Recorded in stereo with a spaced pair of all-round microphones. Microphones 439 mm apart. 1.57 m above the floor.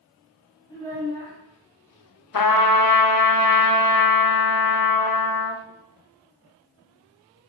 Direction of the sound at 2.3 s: 50° left (ahead or behind).